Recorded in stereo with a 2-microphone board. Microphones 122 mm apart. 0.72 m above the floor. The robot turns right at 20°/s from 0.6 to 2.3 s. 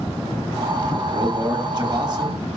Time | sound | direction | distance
1.1 | a man speaking | 35° right (ahead or behind) | 1.2 m